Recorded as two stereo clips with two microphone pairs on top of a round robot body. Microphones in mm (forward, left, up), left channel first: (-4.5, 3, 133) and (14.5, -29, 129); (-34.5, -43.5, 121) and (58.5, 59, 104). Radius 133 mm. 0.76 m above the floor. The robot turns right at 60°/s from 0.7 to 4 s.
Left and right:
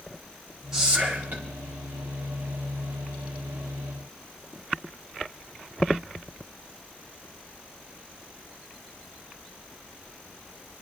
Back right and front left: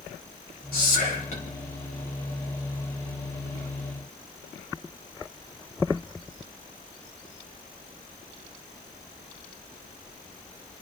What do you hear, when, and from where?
0.7 s whispering: 135° right, 4.5 m; by 1.4 s 90° right, 4.5 m